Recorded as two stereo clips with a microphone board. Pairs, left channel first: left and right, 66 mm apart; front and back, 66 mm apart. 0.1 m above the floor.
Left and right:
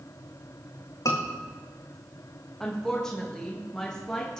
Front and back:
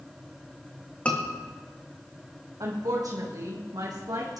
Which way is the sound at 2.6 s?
170° left.